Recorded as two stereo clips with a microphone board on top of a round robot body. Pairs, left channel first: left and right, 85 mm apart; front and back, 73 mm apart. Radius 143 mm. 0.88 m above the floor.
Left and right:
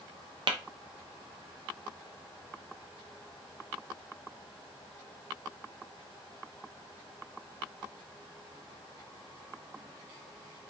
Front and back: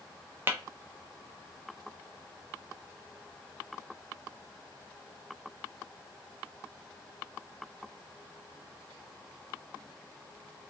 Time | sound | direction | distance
0.5 | tapping | 120° right | 0.5 m